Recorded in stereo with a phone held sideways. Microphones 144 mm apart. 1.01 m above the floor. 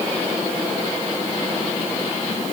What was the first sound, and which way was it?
Only background noise.